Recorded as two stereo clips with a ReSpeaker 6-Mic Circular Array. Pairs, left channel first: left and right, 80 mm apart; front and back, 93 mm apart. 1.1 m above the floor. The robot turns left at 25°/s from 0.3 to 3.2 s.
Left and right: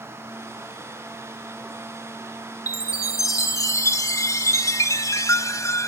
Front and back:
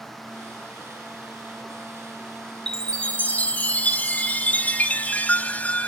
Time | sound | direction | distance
2.7 | a chime | 80° left | 1.1 m